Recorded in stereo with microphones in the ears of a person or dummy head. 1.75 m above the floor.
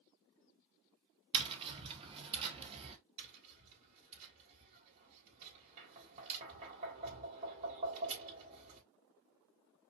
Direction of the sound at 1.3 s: 35° right (ahead or behind).